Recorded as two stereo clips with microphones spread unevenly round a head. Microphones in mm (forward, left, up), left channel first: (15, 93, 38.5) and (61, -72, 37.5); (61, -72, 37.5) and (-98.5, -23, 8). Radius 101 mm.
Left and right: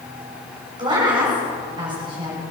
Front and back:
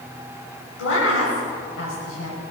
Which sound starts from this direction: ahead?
A woman speaking, at 0.8 s.